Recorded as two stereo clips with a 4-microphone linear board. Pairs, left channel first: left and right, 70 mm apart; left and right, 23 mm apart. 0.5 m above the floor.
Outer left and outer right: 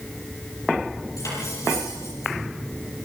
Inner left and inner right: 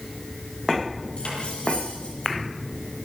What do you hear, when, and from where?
1.2 s cutlery clinking: 50° left (ahead or behind), 9.5 m